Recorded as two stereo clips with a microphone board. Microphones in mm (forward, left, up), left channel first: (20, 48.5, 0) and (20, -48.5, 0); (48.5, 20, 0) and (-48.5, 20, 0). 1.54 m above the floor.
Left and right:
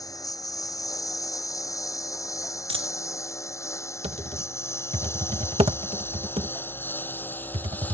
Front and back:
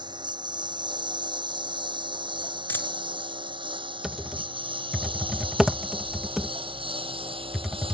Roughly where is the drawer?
No drawer in this recording.